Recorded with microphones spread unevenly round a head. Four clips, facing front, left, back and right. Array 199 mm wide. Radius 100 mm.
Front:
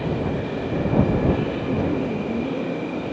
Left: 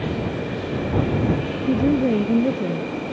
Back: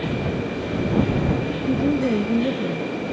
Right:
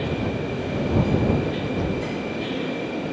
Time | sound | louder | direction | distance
1.6 | a woman speaking | left 7 dB, back 6 dB | 115° left | ?